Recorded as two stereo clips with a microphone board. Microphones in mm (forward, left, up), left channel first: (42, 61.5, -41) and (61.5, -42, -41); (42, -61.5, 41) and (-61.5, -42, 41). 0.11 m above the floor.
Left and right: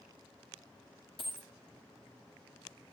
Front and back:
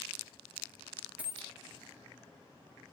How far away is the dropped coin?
About 0.7 m.